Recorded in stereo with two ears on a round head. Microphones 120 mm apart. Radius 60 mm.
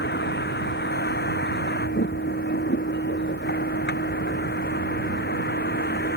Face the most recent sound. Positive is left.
turn(degrees=80)